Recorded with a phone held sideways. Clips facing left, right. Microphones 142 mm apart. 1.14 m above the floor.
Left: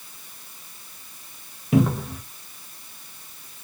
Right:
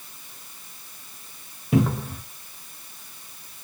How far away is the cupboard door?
About 0.6 m.